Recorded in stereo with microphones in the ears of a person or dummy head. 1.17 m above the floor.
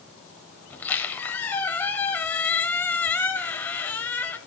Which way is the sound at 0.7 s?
15° left (ahead or behind).